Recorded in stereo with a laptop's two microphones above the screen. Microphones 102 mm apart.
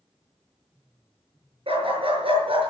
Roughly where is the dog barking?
Right.